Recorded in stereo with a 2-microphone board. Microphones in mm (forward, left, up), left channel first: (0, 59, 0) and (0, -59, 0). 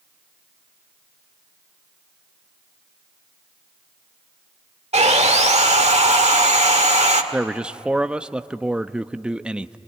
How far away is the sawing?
About 1.6 m.